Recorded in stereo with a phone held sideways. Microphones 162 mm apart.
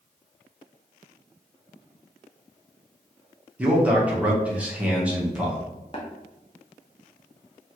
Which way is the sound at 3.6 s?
10° right (ahead or behind).